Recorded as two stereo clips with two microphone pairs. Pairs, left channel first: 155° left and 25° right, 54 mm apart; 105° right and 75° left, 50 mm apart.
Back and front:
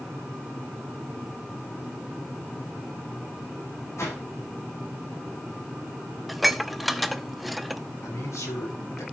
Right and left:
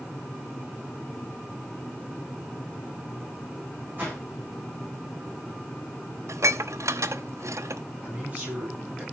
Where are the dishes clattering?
65° left, 0.7 m.